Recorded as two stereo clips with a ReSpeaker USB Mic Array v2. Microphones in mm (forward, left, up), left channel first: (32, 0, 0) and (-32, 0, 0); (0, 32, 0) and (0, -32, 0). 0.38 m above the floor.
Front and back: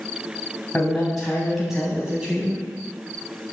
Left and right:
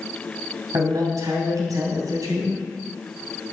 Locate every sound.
0.7 s a man speaking: 75° right, 3 m; by 2.7 s 110° right, 3.5 m